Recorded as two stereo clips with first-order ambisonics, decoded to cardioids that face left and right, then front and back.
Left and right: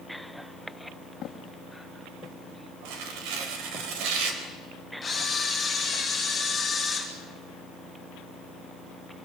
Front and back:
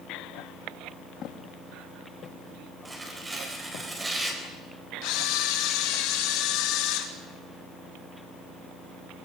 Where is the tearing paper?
100° right, 4 m.